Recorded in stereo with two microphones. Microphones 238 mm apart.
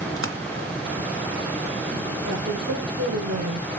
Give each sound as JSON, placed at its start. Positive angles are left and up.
{"t": 0.2, "sound": "a splash", "side_deg": -60, "distance_m": 1.8}
{"t": 2.2, "sound": "a woman speaking", "side_deg": -80, "distance_m": 6.0}